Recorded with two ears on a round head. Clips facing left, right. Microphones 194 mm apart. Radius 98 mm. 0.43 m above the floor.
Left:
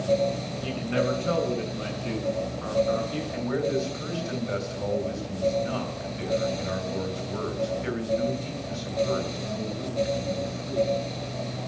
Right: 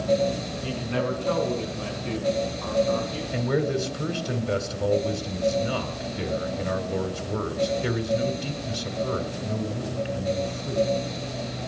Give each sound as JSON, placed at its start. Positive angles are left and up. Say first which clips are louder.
{"t": 0.6, "sound": "a man speaking", "louder": "left 2 dB", "side_deg": 20, "distance_m": 5.0}
{"t": 3.3, "sound": "a man speaking", "louder": "right 2 dB", "side_deg": -50, "distance_m": 3.0}